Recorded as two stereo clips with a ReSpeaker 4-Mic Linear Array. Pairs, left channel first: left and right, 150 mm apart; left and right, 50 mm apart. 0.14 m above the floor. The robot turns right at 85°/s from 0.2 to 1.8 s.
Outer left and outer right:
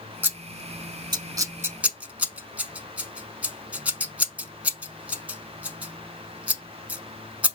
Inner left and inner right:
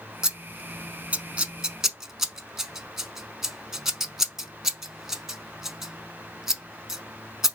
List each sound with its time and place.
0.2 s scissors: 15° right (ahead or behind), 0.6 m; by 7.6 s 10° right (ahead or behind), 0.6 m